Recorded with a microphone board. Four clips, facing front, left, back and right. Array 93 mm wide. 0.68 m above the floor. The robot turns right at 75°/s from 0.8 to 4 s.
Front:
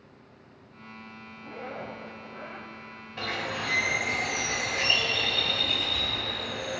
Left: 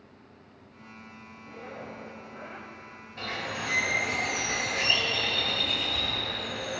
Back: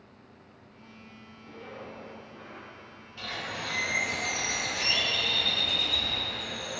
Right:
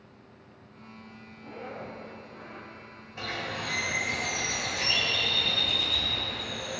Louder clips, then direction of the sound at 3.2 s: Even, front 4 dB; 15° right.